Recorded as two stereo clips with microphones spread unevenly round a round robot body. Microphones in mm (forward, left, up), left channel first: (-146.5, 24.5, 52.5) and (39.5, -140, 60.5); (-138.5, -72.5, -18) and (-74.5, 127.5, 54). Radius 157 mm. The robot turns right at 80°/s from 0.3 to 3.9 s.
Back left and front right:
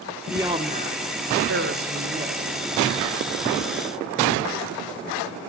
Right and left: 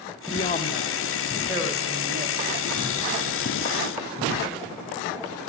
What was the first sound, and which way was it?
A man speaking, 125° right.